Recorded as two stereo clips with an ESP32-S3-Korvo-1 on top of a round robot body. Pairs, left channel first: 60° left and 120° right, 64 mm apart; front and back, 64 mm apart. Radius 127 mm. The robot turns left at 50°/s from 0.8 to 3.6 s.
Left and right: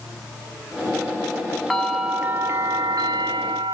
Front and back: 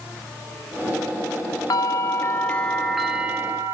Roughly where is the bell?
Ahead right.